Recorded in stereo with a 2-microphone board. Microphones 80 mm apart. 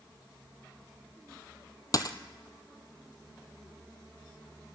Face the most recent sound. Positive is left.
turn(degrees=45)  # may be behind; listen again after turning